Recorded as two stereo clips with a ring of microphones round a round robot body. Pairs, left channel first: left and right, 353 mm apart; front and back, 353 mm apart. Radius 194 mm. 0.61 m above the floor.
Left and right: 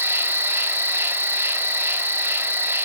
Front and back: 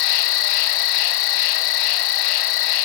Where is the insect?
5° right, 0.7 m.